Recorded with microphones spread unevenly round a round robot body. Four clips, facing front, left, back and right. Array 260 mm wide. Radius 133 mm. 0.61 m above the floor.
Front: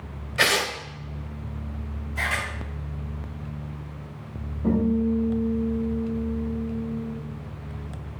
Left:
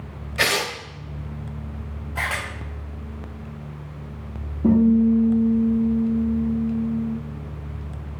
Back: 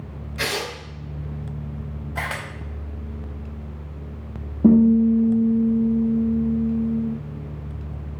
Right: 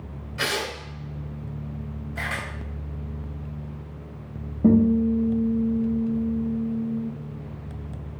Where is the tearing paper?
35° left, 2 m.